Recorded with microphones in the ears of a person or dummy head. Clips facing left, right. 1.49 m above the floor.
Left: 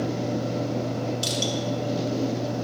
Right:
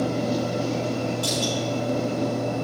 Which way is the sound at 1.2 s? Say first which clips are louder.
Right 2 dB; 45° left (ahead or behind).